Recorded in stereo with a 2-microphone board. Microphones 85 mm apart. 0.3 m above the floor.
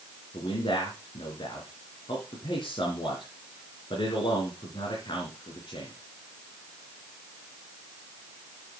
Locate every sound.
0.3 s a man speaking: 75° left (ahead or behind), 3.5 m